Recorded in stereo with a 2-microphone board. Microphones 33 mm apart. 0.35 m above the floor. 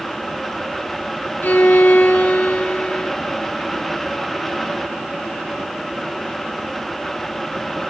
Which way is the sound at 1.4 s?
65° left (ahead or behind).